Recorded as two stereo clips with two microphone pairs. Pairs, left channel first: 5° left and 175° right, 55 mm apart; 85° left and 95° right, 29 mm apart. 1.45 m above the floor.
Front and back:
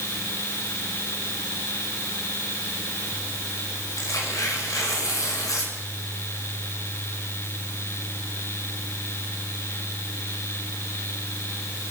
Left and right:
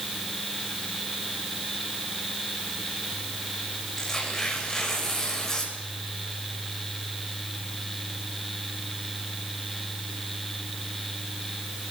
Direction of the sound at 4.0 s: 15° left.